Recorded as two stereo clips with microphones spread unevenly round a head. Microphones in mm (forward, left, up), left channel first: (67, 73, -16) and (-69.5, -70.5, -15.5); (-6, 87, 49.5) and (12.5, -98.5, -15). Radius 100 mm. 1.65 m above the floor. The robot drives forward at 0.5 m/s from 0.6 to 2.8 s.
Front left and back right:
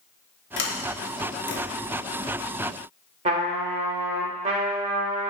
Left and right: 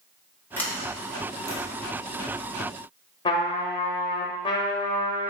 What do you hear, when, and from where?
0.6 s a sliding door: 30° left, 0.8 m; by 1.6 s 70° left, 0.6 m
3.2 s a trumpet: 165° left, 0.6 m